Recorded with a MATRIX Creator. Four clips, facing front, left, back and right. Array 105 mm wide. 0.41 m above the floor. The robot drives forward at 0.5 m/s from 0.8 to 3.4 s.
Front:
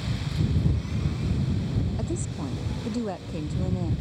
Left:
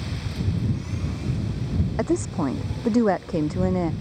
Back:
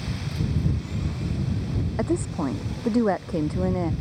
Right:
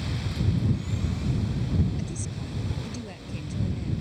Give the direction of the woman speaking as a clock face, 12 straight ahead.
8 o'clock.